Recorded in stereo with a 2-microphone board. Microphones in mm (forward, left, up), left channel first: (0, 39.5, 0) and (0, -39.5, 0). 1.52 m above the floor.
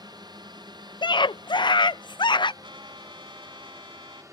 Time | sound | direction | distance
0.0 | a drone | 60° right (ahead or behind) | ?
1.0 | a scream | 70° left (ahead or behind) | ?
2.6 | a trumpet | 90° right | ?